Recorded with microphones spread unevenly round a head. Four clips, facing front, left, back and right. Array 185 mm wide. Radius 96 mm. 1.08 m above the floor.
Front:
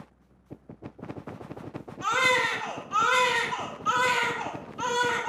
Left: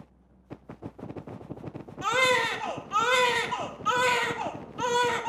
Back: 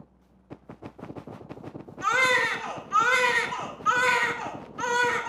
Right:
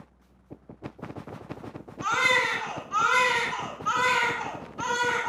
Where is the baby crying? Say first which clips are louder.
Left 1 dB, back 1 dB; 95° left, 1.2 m.